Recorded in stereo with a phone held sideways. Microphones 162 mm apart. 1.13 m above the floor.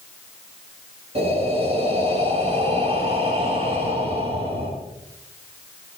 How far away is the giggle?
I don't hear a giggle.